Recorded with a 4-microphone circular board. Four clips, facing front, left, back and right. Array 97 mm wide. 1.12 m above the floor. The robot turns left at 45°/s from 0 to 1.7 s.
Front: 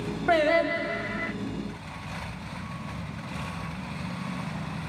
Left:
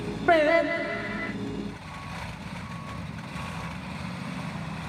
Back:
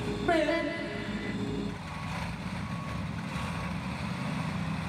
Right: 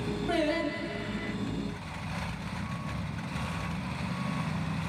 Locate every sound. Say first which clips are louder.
0.3 s singing: left 10 dB, front 5 dB; 75° left, 1.2 m; by 1.3 s 30° left, 1.2 m